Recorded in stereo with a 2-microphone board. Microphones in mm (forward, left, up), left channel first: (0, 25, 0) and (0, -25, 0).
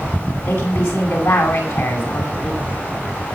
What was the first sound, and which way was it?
A woman speaking, 70° left (ahead or behind).